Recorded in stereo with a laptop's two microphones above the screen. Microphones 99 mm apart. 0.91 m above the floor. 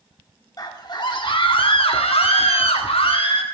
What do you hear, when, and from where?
0.6 s a scream: 40° left (ahead or behind), 1.9 m; by 3.4 s 65° left (ahead or behind), 1.9 m